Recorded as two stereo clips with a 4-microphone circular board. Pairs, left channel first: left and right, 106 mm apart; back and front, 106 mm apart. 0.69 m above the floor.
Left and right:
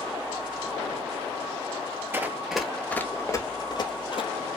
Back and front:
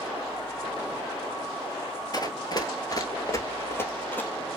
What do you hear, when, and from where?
2.1 s running footsteps: 150° right, 0.9 m; by 4.3 s 110° left, 1.2 m